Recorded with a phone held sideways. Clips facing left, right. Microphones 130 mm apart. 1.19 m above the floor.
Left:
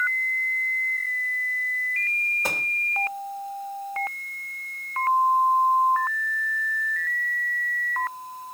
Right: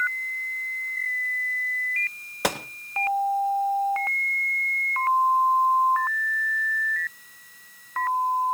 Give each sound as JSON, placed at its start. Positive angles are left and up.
{"t": 2.4, "sound": "a gunshot", "side_deg": -80, "distance_m": 0.9}